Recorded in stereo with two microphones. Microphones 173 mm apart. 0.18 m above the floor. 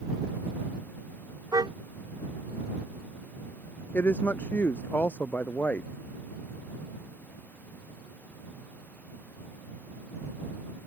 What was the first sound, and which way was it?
A car horn, 25° right (ahead or behind).